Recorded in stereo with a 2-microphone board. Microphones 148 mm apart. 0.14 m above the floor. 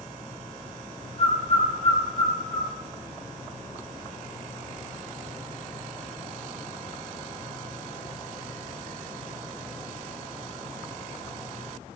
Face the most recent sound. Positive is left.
turn(degrees=45)  # may be behind; listen again after turning